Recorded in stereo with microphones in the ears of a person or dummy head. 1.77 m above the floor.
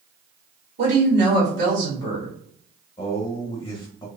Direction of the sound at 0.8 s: 60° right (ahead or behind).